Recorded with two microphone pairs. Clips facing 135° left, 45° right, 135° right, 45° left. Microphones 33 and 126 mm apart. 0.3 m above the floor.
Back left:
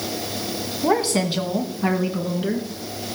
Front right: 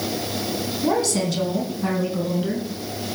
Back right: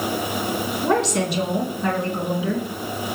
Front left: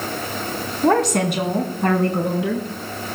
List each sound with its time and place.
0.8 s a woman speaking: 75° left, 2 m; by 2.7 s 65° left, 3 m